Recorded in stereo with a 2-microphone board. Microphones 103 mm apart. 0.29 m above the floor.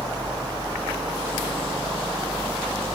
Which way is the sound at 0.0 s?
40° right (ahead or behind).